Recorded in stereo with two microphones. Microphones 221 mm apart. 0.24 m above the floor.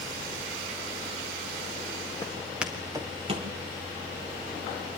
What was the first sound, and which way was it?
Footsteps, 10° left (ahead or behind).